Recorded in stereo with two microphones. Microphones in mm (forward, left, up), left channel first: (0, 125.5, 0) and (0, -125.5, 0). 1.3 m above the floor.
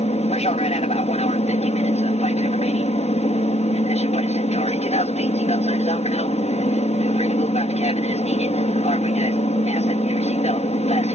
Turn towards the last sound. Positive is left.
turn(degrees=30)  # may be behind; listen again after turning